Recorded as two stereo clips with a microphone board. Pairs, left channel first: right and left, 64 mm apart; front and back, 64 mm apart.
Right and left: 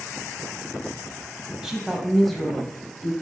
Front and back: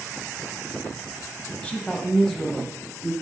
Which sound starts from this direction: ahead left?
A woman speaking, at 1.6 s.